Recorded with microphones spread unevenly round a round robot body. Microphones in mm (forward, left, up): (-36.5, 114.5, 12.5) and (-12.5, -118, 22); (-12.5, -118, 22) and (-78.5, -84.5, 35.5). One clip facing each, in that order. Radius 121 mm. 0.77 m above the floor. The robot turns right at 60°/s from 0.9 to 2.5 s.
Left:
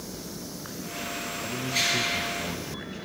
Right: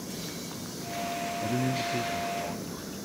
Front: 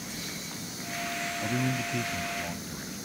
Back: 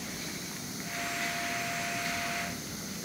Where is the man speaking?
35° right; by 3.0 s 30° left.